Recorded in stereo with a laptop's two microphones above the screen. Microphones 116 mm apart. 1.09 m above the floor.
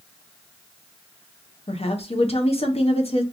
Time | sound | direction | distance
1.7 | a woman speaking | 60° left (ahead or behind) | 0.9 m